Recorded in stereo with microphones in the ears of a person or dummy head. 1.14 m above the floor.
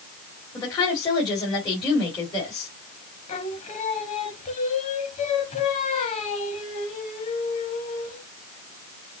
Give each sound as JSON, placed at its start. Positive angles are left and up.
{"t": 0.5, "sound": "a woman speaking", "side_deg": 20, "distance_m": 2.0}
{"t": 3.3, "sound": "singing", "side_deg": 30, "distance_m": 0.8}